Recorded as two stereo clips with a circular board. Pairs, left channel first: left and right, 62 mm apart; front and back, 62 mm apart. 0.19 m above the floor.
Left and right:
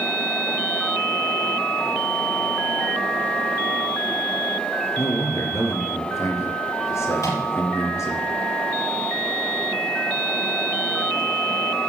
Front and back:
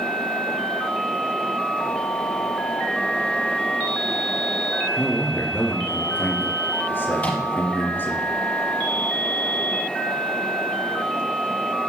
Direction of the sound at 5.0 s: 55° left.